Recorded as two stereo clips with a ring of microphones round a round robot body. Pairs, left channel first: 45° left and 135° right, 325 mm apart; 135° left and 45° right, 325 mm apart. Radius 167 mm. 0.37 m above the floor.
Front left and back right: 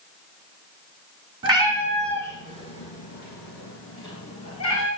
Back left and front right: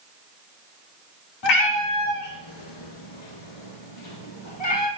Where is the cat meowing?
150° left, 1.2 m; by 4.9 s 90° left, 2.5 m.